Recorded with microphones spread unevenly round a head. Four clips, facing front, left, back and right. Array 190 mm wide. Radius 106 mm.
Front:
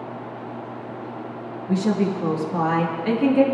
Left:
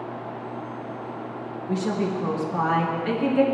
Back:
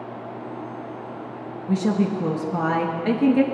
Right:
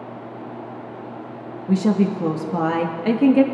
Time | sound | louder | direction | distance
1.7 | a woman speaking | right 7 dB, even | 100° right | 1.6 m